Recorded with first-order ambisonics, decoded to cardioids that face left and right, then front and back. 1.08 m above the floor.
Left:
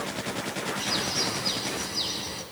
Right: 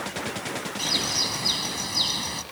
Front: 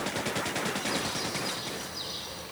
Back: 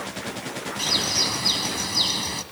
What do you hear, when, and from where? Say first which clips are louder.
0.8 s a bird: right 4 dB, back 9 dB; 150° right, 1.9 m